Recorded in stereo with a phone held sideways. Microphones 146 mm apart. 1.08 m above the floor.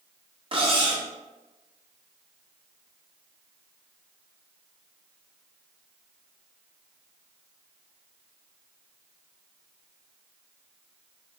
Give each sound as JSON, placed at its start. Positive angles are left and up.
{"t": 0.5, "sound": "cutlery clinking", "side_deg": -35, "distance_m": 0.9}